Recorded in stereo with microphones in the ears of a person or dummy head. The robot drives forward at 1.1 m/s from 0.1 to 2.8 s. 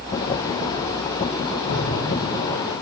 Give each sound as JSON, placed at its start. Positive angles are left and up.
{"t": 1.7, "sound": "an explosion", "side_deg": 65, "distance_m": 1.5}